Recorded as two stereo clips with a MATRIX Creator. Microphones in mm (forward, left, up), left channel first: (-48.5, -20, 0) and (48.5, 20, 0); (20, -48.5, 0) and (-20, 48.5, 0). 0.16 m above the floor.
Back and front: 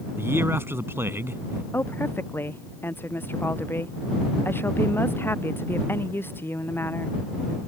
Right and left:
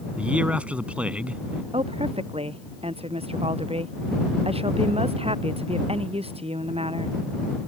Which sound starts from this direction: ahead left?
A man speaking, at 0.2 s.